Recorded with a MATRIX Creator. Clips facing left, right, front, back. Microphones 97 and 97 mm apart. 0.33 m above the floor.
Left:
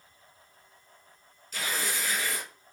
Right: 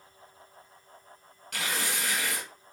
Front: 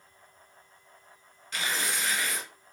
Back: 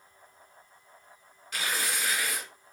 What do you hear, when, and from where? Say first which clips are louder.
1.5 s tearing paper: even, even; 100° right, 1.6 m